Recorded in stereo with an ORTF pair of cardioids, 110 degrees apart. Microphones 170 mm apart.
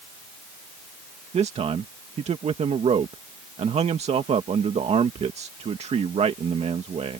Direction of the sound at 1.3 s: 40° right.